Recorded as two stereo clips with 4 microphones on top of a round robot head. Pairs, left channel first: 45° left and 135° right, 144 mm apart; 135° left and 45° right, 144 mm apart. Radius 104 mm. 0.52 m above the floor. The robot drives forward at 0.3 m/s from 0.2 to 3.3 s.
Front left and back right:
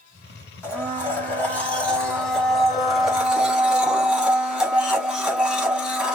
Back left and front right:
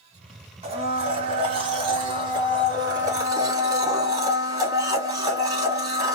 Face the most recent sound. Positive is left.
turn(degrees=-60)